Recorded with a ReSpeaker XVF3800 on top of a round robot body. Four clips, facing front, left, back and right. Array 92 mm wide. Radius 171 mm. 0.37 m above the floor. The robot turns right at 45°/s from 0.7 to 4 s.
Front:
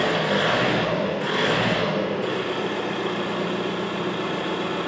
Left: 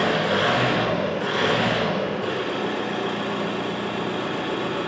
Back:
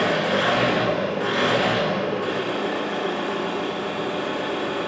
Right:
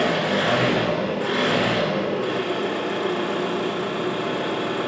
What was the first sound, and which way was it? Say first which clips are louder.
An engine running: even, back 1 dB; 140° left.